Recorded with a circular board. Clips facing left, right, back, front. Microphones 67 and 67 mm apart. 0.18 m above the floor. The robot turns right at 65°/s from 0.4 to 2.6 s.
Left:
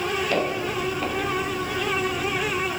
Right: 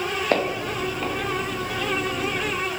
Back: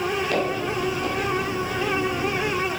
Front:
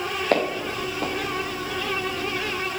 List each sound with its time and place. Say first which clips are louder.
0.3 s footsteps: right 1 dB, even; 45° right, 3 m; by 1.1 s 5° left, 3 m